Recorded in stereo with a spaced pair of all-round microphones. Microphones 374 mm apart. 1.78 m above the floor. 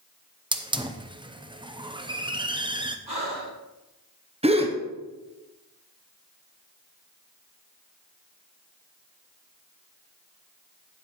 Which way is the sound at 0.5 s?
15° right (ahead or behind).